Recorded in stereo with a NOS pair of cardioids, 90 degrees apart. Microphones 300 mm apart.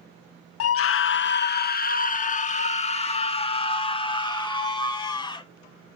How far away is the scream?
About 0.8 m.